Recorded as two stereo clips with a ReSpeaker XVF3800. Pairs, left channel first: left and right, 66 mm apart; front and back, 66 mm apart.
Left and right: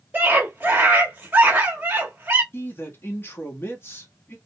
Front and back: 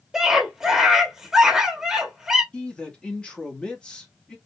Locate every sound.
0.1 s a scream: 105° right, 0.7 m
2.5 s a man speaking: 65° left, 0.9 m